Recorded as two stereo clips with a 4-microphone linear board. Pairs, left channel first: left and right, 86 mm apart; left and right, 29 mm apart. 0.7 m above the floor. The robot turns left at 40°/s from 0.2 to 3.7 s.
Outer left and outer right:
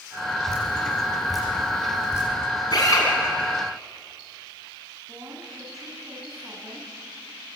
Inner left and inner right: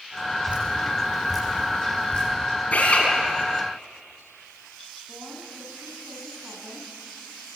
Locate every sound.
0.5 s dripping: 40° right (ahead or behind), 9.5 m; by 2.3 s 35° left (ahead or behind), 9.5 m
2.7 s a drill: 55° left (ahead or behind), 6 m; by 3.1 s 40° left (ahead or behind), 6 m
5.1 s a woman speaking: 40° right (ahead or behind), 5 m